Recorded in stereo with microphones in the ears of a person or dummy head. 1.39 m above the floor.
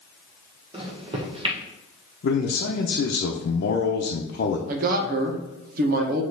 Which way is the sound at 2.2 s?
55° left (ahead or behind).